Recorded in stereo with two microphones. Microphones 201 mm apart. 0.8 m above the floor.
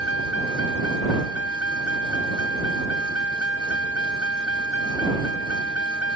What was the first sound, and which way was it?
A vehicle, 80° left.